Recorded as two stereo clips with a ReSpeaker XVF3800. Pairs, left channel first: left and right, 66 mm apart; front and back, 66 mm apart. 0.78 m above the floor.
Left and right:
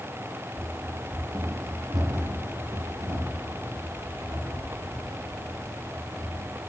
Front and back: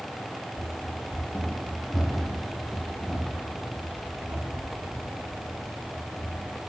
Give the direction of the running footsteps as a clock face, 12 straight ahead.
1 o'clock.